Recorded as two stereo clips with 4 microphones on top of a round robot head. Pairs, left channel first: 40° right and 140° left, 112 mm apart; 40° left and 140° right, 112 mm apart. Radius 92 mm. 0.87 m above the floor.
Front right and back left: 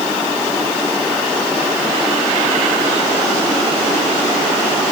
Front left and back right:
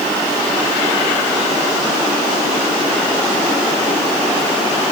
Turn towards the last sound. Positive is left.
No sound to turn to.